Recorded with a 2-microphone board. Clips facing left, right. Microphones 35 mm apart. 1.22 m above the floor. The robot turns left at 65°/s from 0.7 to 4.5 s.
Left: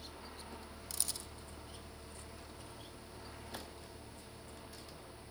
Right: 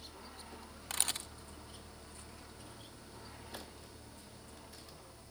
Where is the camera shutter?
50° right (ahead or behind), 0.6 m.